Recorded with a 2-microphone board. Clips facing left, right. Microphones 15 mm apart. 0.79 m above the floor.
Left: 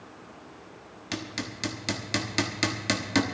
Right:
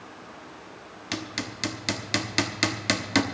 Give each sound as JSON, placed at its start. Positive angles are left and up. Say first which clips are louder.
{"t": 1.1, "sound": "hammering", "louder": "right 2 dB", "side_deg": -15, "distance_m": 0.9}